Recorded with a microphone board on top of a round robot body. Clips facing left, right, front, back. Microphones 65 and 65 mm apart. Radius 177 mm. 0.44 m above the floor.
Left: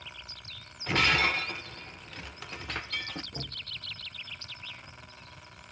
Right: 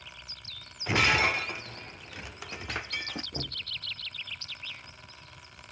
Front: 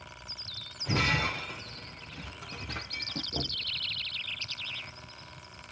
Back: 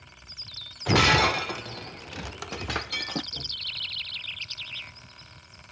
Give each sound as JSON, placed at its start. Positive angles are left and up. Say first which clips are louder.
{"t": 0.9, "sound": "breaking glass", "louder": "right 1 dB, back 8 dB", "azimuth_deg": -170, "distance_m": 0.5}
{"t": 3.3, "sound": "knocking", "louder": "right 3 dB, front 4 dB", "azimuth_deg": -20, "distance_m": 0.6}